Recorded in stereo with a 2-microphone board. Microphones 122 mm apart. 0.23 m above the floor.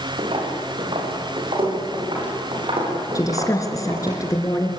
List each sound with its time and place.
0.2 s footsteps: 50° right (ahead or behind), 8 m; by 4.2 s 45° right (ahead or behind), 11.5 m
3.1 s a woman speaking: 30° left (ahead or behind), 2.5 m